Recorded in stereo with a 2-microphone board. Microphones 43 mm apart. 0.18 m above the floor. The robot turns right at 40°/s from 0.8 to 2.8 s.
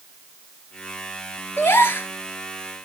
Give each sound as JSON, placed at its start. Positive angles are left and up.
{"t": 1.6, "sound": "a gasp", "side_deg": 65, "distance_m": 2.5}